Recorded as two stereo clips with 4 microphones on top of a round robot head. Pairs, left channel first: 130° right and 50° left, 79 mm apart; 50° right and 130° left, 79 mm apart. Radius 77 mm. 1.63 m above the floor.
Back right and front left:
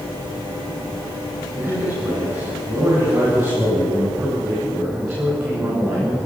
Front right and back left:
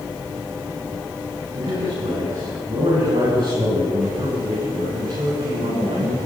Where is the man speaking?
110° left, 9.5 m; by 6.3 s 100° left, 14.5 m.